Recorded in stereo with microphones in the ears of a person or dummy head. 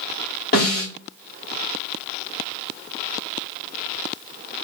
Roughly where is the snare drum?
Left.